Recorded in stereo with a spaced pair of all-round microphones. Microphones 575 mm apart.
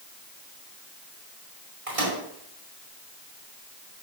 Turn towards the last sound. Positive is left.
turn(degrees=-80)